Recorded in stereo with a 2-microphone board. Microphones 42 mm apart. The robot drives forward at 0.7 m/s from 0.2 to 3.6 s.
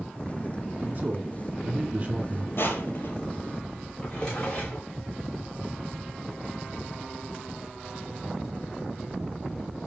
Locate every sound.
0.8 s a man speaking: 40° right (ahead or behind), 2.0 m; by 2.5 s 35° right (ahead or behind), 2.5 m
2.6 s crushing: 65° left (ahead or behind), 2.5 m; by 3.1 s 60° left (ahead or behind), 2.5 m
4.0 s a drawer: 20° left (ahead or behind), 5 m